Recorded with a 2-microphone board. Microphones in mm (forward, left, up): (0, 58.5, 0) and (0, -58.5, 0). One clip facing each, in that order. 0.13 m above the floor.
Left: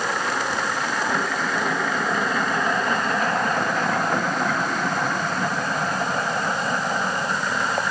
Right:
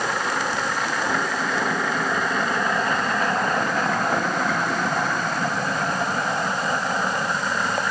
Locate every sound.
Only background noise.